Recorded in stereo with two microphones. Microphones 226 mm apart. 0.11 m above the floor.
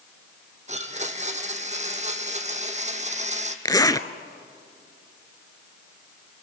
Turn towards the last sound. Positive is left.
turn(degrees=15)  # may be behind; listen again after turning